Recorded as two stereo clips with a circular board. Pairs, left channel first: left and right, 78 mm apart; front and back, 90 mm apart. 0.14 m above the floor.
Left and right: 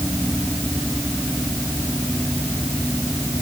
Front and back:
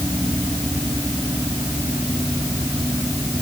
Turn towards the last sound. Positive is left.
No sound to turn to.